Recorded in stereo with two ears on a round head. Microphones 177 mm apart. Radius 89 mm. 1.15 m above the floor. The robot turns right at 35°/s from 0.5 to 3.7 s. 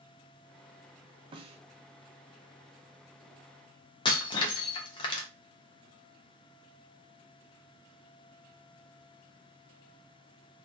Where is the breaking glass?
25° left (ahead or behind), 0.5 m.